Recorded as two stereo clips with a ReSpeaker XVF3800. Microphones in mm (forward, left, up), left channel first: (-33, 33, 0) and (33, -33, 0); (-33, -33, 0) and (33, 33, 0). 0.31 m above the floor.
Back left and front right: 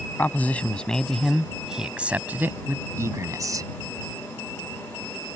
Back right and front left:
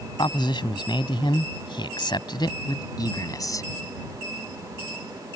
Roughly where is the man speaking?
Behind.